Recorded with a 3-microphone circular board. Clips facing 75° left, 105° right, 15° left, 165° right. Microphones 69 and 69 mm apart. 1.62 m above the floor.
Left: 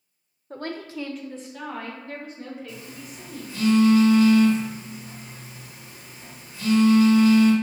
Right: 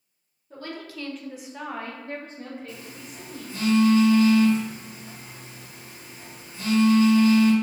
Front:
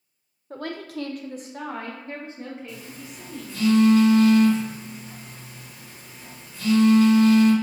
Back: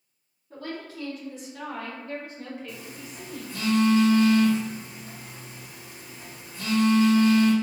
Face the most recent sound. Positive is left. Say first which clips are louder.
# left 1 dB, front 1 dB
turn(degrees=-145)